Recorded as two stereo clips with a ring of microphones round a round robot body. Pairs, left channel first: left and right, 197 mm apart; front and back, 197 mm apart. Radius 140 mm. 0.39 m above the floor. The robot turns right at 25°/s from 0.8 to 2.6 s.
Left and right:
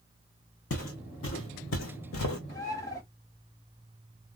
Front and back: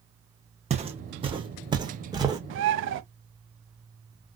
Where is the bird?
165° left, 0.5 m.